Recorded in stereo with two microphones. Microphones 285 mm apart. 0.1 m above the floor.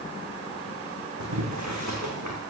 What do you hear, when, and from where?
1.2 s boiling: 80° right, 2.5 m